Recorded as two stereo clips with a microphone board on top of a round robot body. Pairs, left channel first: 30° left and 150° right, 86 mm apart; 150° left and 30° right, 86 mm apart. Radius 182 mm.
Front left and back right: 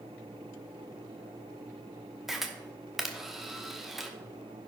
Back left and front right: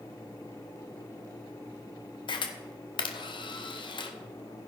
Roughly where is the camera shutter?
Behind left.